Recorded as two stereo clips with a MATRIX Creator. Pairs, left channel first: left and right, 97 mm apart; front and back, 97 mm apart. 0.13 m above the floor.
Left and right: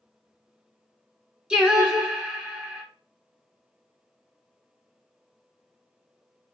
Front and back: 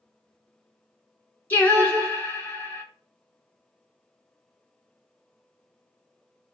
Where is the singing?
30° right, 0.7 m.